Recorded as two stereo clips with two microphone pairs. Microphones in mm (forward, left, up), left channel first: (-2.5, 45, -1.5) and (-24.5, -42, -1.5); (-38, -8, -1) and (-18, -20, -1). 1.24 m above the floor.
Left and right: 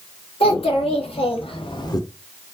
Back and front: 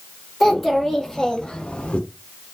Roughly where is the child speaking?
Ahead left.